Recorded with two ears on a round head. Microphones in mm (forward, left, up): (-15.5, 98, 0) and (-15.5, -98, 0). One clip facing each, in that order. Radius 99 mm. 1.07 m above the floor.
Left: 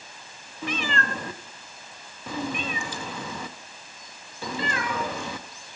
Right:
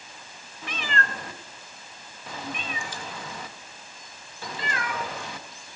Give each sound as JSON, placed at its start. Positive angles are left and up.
{"t": 0.6, "sound": "a cat meowing", "side_deg": 70, "distance_m": 0.8}